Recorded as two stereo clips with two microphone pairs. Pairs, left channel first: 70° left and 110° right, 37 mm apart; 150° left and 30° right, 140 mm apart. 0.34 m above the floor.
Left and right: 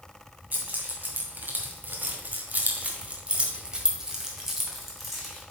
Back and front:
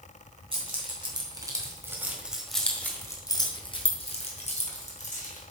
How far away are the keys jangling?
About 2 m.